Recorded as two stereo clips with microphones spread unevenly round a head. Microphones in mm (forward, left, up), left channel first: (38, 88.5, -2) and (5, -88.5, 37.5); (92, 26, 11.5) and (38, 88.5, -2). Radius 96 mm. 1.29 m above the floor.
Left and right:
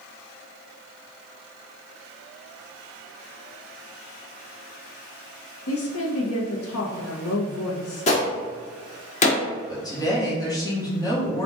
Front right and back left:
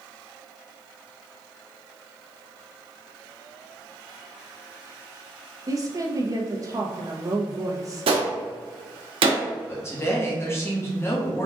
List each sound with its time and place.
5.7 s a woman speaking: 80° left, 1.0 m
8.1 s a gunshot: 140° left, 0.8 m
9.7 s a woman speaking: 10° left, 1.4 m